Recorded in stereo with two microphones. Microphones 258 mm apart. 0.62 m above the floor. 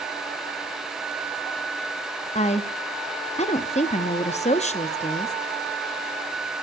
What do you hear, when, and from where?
2.4 s a woman speaking: 25° left (ahead or behind), 0.6 m